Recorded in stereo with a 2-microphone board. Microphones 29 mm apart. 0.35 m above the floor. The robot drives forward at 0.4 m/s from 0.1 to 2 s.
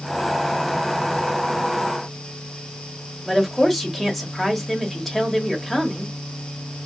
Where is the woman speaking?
10° left (ahead or behind), 1.1 m.